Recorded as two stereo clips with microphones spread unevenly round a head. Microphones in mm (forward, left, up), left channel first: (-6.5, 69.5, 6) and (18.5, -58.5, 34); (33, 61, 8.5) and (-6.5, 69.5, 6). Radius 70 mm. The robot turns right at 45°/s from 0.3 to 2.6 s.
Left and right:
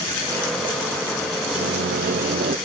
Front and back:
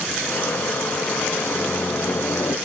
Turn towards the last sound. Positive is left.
turn(degrees=-40)